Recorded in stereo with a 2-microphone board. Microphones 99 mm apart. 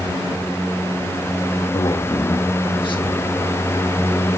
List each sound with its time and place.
1.7 s a man speaking: 50° left (ahead or behind), 1.6 m